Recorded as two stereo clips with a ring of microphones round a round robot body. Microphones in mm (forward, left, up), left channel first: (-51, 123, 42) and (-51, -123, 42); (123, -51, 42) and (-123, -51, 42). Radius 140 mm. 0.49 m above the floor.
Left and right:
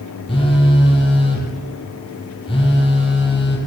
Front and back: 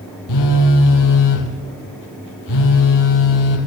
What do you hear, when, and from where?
0.3 s a phone buzzing: 15° left, 5 m